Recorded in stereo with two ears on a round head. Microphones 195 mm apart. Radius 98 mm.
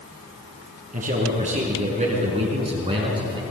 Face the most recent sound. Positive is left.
turn(degrees=-25)  # may be behind; listen again after turning